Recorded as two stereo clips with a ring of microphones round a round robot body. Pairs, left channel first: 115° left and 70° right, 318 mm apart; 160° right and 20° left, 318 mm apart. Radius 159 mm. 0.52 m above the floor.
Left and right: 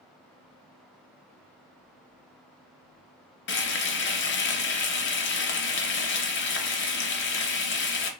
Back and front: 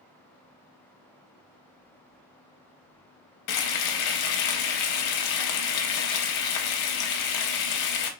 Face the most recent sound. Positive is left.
turn(degrees=170)